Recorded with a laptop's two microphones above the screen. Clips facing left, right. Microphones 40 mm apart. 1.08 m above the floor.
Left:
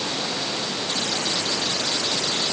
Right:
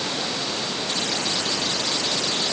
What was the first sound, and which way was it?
Only background noise.